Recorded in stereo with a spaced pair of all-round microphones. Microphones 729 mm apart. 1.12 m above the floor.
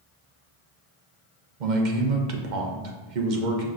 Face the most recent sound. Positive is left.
turn(degrees=-85)